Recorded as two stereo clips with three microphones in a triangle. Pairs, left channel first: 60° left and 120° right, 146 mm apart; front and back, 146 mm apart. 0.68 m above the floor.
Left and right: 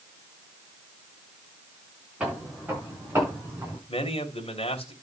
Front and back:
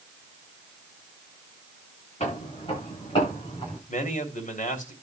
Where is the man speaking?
15° left, 3 m.